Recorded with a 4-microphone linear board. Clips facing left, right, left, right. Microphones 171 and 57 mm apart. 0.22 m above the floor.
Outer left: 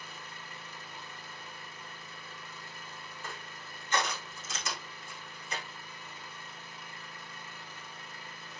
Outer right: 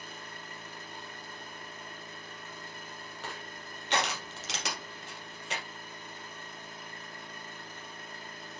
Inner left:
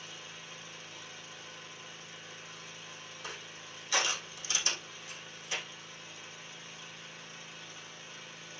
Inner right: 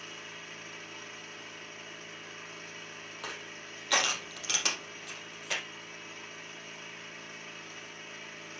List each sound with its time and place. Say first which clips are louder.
0.0 s an engine running: outer right 2 dB, inner right 3 dB; 50° right (ahead or behind), 3.5 m
3.2 s crushing: outer right 3 dB, inner right 3 dB; 75° right (ahead or behind), 3 m